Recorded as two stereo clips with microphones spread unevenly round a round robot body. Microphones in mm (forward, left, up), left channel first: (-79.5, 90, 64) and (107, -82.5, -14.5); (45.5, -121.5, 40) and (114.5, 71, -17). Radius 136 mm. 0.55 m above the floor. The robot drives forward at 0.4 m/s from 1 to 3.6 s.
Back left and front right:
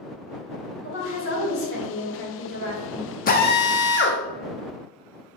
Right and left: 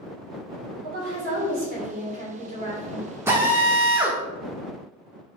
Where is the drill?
80° left, 0.6 m; by 4.2 s 105° left, 0.6 m.